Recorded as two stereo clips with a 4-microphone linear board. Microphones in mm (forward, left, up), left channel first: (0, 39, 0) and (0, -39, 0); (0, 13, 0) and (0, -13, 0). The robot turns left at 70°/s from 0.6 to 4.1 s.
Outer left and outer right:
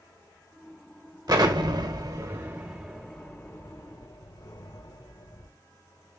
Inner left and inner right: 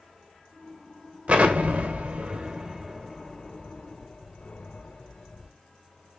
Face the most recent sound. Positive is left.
turn(degrees=65)  # may be behind; listen again after turning